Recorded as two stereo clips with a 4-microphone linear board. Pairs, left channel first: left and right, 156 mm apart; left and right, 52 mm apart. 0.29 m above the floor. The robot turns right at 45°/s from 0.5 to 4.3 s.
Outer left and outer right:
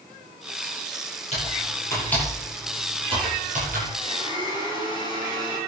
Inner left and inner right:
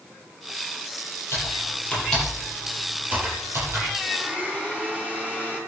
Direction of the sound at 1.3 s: 45° left (ahead or behind).